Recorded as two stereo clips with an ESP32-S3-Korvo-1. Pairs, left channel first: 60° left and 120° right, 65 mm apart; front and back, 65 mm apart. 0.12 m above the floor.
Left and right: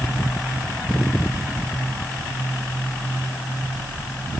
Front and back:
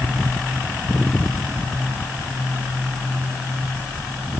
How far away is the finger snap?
No finger snap in this recording.